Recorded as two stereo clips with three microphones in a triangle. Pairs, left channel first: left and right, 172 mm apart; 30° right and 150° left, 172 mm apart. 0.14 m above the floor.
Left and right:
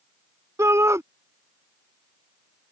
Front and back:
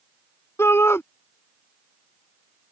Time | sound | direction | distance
0.6 | a shout | 65° right | ?